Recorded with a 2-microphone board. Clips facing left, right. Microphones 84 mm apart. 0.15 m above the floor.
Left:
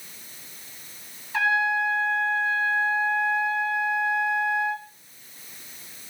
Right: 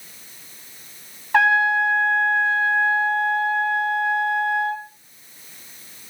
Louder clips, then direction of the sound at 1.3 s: Right 6 dB; 65° right (ahead or behind).